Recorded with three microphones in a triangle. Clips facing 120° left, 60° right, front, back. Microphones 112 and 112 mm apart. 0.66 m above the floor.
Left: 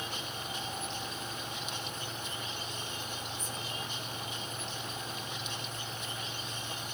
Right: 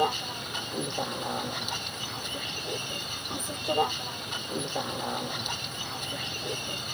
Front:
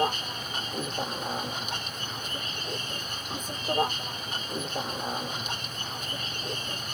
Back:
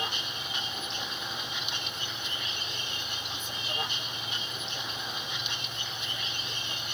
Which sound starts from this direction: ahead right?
A vehicle, at 0.0 s.